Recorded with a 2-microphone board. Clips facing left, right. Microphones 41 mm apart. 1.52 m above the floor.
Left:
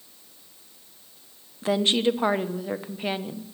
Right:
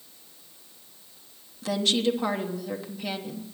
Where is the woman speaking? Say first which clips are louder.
Left 3 dB; 30° left (ahead or behind), 0.9 m.